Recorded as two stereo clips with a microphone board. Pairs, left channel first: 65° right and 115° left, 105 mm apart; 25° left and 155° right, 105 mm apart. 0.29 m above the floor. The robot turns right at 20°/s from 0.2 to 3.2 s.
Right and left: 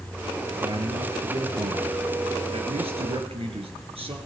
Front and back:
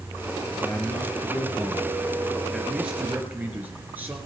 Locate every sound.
0.5 s a man speaking: 75° left, 4 m; by 4.2 s 130° left, 4 m